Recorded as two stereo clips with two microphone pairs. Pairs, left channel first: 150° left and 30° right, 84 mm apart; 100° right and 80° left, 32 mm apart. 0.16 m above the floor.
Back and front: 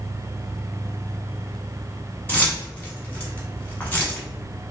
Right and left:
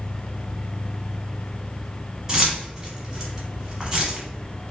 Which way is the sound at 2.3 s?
110° left.